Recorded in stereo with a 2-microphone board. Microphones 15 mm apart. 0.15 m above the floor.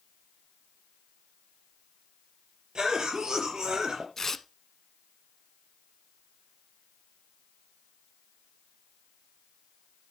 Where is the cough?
65° right (ahead or behind), 4.5 m.